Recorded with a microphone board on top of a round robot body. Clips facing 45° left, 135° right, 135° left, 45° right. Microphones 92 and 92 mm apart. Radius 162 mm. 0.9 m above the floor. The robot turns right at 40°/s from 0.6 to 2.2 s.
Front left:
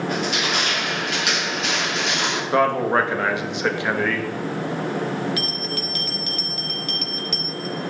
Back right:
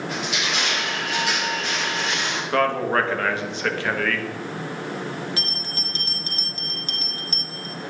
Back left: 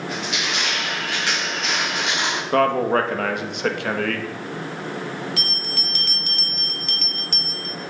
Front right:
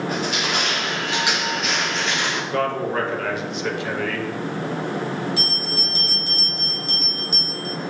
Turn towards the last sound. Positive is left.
turn(degrees=165)